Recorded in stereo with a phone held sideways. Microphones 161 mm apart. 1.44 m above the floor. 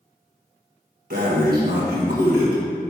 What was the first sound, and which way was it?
Breathing, 70° right (ahead or behind).